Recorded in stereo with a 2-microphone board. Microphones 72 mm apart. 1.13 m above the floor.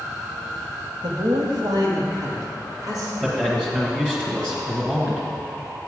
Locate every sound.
1.0 s a man speaking: 75° right (ahead or behind), 1.7 m; by 3.1 s 55° right (ahead or behind), 3 m
3.2 s a man speaking: 10° right (ahead or behind), 1.4 m